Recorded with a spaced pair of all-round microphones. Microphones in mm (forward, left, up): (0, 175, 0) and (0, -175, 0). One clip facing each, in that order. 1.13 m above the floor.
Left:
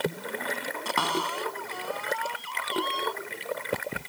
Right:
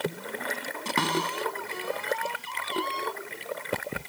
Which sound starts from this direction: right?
A cupboard door, at 0.8 s.